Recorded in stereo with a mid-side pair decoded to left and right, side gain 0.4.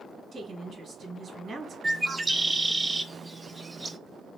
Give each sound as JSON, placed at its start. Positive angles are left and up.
{"t": 0.3, "sound": "a woman speaking", "azimuth_deg": -55, "distance_m": 1.9}
{"t": 1.8, "sound": "a bird", "azimuth_deg": -20, "distance_m": 0.7}